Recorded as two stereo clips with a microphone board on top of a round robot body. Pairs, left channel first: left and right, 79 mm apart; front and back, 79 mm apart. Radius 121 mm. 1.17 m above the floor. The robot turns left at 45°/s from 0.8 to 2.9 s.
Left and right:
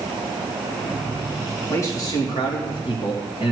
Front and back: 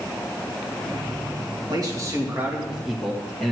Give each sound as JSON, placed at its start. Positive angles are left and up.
{"t": 1.7, "sound": "a man speaking", "azimuth_deg": 145, "distance_m": 2.0}